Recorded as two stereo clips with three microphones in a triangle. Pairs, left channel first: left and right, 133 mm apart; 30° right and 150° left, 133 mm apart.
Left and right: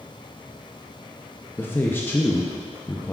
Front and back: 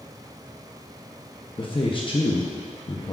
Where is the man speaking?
15° left, 0.6 m.